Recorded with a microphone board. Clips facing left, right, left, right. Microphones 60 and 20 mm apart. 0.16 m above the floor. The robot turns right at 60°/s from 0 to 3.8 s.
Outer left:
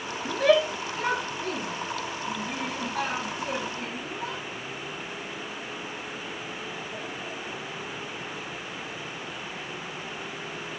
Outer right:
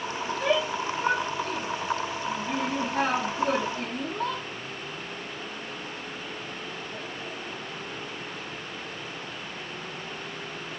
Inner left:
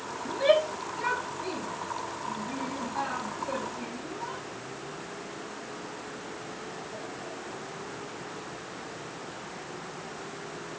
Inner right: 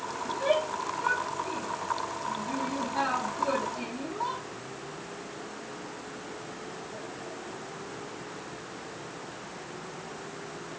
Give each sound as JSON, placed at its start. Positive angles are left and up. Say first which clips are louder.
{"t": 0.2, "sound": "a shout", "louder": "outer left 5 dB, inner left 4 dB", "side_deg": 45, "distance_m": 5.0}